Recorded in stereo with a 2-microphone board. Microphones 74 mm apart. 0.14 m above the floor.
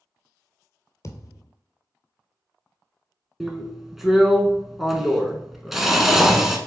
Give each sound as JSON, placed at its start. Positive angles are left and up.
{"t": 1.0, "sound": "a thud", "side_deg": 45, "distance_m": 0.8}
{"t": 3.4, "sound": "a drill", "side_deg": -5, "distance_m": 0.8}